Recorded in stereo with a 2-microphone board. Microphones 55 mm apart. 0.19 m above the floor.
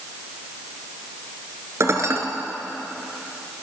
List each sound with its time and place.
1.8 s dishes clattering: 55° right (ahead or behind), 2 m